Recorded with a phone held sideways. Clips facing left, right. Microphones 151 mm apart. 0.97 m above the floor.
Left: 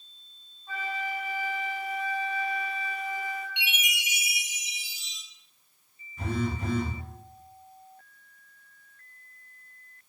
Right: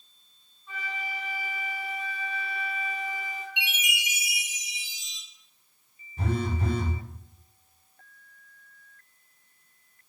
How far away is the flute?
About 1.2 m.